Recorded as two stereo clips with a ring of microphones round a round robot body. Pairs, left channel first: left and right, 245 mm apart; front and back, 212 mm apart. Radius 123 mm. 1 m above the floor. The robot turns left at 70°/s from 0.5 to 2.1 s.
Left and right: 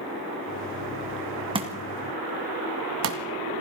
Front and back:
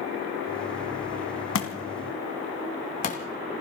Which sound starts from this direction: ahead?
A thud, at 1.6 s.